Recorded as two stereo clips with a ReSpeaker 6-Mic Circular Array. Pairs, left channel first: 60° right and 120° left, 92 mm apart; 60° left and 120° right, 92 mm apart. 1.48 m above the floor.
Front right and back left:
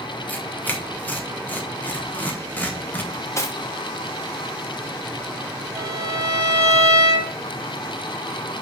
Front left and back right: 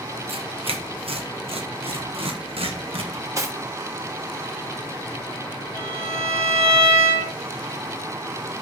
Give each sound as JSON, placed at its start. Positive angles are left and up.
{"t": 0.3, "sound": "tearing paper", "azimuth_deg": -130, "distance_m": 1.3}
{"t": 3.1, "sound": "cutlery clinking", "azimuth_deg": -95, "distance_m": 1.0}
{"t": 5.8, "sound": "a violin", "azimuth_deg": -145, "distance_m": 3.5}